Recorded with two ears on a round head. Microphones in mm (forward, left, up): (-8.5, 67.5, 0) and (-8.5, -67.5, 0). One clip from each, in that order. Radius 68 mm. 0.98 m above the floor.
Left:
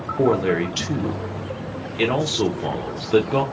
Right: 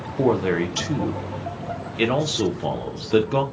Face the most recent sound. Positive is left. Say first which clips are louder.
# left 1 dB
turn(degrees=0)  # may be behind; listen again after turning